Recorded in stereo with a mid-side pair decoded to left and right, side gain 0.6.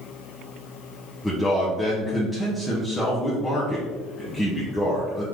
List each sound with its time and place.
1.2 s a man speaking: 10° left, 1.1 m